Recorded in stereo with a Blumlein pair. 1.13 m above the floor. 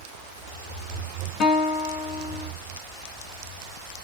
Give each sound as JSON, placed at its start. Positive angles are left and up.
{"t": 1.4, "sound": "a guitar", "azimuth_deg": 35, "distance_m": 0.7}